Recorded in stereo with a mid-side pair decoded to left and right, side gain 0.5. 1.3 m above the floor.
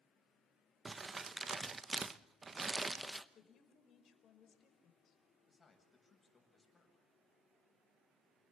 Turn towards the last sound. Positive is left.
turn(degrees=30)